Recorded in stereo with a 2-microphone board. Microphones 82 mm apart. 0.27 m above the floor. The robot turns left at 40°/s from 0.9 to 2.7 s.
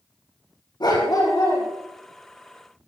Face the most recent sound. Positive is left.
turn(degrees=-10)